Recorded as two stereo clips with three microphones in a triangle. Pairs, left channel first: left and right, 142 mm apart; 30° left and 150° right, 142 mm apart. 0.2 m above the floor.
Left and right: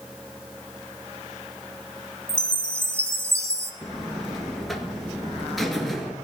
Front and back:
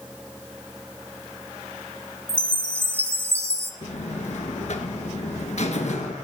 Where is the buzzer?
Straight ahead, 1.4 m.